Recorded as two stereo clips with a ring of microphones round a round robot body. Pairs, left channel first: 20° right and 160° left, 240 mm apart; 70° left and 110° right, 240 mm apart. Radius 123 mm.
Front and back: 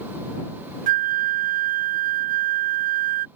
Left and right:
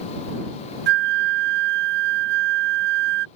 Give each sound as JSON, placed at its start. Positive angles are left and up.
{"t": 0.9, "sound": "a flute", "azimuth_deg": -150}